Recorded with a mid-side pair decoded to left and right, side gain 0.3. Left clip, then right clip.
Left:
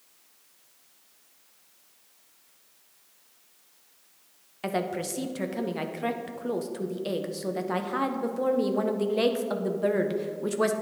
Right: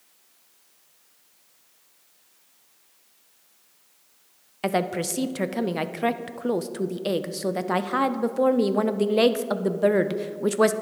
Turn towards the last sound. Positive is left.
turn(degrees=-60)